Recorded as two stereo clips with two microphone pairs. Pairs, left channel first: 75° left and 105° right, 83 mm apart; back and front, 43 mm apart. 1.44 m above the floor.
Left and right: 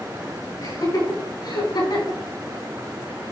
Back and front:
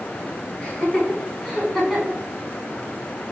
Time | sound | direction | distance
0.6 | laughter | 115° left | 5 m